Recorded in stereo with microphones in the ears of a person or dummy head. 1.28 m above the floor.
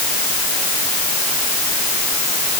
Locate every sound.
Only background noise.